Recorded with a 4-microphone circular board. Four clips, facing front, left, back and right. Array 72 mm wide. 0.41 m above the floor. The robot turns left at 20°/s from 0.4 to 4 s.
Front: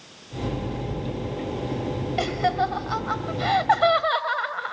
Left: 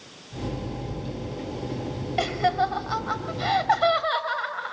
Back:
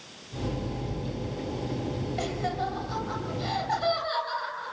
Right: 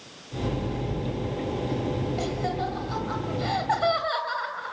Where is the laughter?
50° left, 2.5 m; by 4.7 s 15° left, 2.5 m.